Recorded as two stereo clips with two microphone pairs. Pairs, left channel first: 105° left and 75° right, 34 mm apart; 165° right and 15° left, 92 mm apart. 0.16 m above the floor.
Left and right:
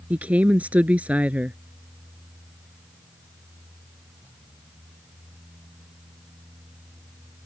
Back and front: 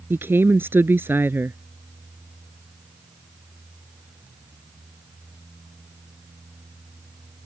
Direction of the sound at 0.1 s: 50° right.